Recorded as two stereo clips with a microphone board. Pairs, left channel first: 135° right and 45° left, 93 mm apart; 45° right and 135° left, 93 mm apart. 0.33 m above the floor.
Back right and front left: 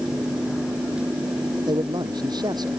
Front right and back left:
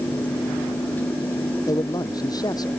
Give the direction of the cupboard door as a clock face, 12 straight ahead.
No cupboard door in this recording.